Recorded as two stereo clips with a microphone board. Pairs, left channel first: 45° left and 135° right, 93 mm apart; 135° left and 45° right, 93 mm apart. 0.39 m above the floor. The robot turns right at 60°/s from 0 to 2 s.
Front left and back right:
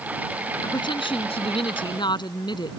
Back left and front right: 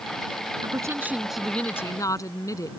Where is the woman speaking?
Straight ahead; by 2.7 s 80° left.